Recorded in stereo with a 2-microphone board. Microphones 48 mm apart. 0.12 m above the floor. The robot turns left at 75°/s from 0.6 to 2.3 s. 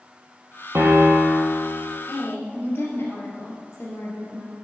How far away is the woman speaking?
About 2.5 m.